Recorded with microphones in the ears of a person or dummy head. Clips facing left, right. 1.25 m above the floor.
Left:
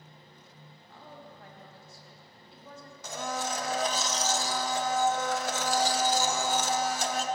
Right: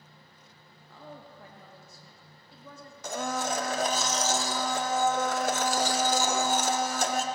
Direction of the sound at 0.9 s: 80° right.